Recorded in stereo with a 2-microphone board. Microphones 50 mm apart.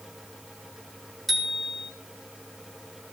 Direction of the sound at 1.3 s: Centre (ahead or behind).